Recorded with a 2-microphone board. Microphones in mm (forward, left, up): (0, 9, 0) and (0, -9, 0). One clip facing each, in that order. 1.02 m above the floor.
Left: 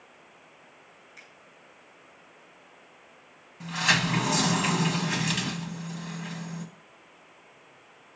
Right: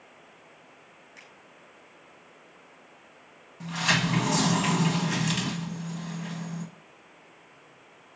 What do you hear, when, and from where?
1.2 s a finger snap: 20° right (ahead or behind), 5 m
3.6 s a sliding door: centre (ahead or behind), 1.4 m